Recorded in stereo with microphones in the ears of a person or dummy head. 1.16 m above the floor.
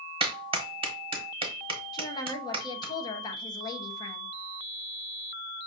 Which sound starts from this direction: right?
A clap, at 0.2 s.